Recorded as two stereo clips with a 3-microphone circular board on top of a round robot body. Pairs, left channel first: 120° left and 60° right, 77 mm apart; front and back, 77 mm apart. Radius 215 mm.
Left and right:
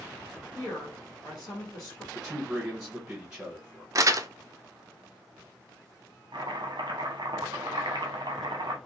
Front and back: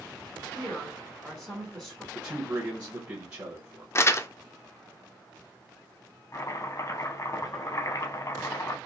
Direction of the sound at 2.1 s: 135° right.